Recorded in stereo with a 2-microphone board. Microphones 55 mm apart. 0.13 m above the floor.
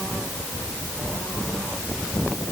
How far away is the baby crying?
No baby crying in this recording.